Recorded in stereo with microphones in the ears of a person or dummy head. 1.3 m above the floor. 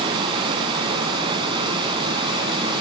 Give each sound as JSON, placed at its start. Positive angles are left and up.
{"t": 0.0, "sound": "running water", "side_deg": -25, "distance_m": 2.5}